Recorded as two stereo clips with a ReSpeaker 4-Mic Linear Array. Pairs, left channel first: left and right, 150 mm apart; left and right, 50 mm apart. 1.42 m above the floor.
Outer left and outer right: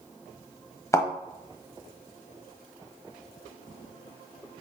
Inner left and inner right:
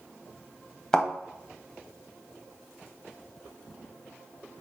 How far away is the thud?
About 1.3 m.